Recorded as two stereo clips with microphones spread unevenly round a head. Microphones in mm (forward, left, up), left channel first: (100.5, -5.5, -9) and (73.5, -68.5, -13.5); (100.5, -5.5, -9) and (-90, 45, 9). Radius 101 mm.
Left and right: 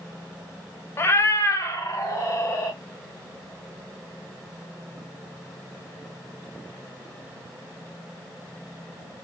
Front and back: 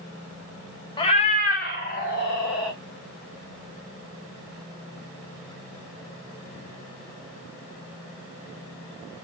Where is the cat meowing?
50° left, 0.6 m; by 2.8 s 25° left, 1.9 m.